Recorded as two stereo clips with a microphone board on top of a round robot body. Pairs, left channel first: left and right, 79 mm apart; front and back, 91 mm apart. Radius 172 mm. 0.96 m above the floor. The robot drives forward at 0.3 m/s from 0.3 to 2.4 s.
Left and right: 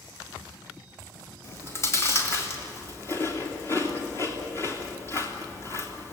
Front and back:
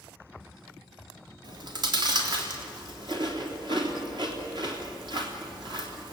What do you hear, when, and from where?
1.4 s chewing: 145° left, 3 m; by 6.1 s 150° left, 3.5 m